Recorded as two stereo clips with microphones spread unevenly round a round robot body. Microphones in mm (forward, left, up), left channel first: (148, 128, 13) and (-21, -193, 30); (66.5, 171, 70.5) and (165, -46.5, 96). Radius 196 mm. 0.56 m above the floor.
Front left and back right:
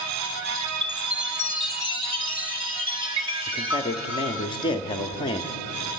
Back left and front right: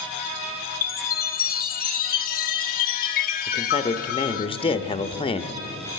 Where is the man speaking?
115° left, 1.1 m.